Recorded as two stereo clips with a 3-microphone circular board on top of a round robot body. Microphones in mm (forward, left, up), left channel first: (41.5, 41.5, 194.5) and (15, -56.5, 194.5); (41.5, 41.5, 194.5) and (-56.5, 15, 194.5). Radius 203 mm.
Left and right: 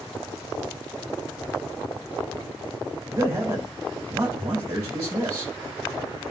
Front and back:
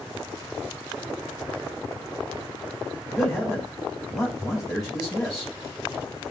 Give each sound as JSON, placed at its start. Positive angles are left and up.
{"t": 3.1, "sound": "a man speaking", "azimuth_deg": -75, "distance_m": 2.5}